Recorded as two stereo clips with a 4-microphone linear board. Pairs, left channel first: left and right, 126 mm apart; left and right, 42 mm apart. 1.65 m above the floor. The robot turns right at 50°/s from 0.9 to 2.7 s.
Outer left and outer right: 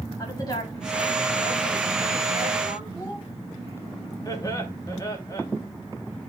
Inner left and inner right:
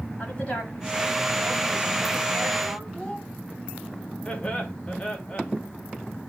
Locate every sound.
0.2 s a woman speaking: 30° left, 8.5 m; by 2.8 s 120° left, 8.5 m
2.9 s a child speaking: 25° left (ahead or behind), 6.5 m
4.2 s laughter: 30° left (ahead or behind), 3 m